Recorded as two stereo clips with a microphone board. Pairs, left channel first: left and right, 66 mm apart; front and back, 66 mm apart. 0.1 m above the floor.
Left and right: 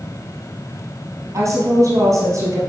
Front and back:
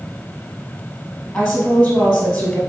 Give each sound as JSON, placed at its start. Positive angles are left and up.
{"t": 1.3, "sound": "a woman speaking", "azimuth_deg": -85, "distance_m": 2.0}